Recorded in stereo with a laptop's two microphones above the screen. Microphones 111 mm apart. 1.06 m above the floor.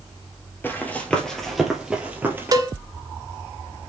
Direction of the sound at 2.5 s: 35° right (ahead or behind).